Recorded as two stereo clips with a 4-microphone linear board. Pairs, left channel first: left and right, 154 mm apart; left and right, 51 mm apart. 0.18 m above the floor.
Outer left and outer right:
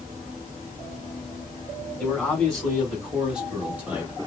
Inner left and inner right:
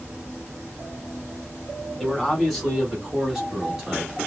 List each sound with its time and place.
2.0 s a man speaking: 5° left (ahead or behind), 1.7 m; by 4.3 s 15° right (ahead or behind), 1.4 m